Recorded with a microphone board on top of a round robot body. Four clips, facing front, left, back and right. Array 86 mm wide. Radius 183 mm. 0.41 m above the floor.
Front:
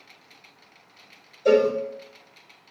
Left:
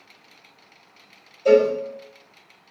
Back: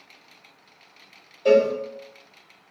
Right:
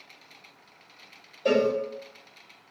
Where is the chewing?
No chewing in this recording.